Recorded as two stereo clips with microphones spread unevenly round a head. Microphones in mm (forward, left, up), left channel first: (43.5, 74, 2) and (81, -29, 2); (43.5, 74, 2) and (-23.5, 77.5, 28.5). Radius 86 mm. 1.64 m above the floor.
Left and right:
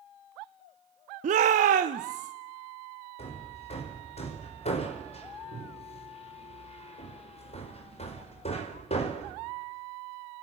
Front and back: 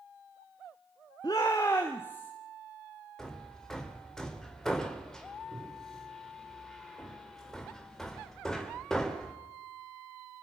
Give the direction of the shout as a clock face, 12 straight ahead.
3 o'clock.